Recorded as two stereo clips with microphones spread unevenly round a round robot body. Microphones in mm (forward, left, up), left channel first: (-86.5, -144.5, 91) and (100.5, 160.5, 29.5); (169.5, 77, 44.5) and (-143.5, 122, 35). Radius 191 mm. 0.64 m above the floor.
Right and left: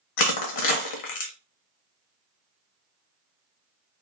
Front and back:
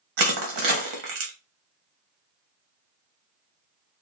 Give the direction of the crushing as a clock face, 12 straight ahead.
5 o'clock.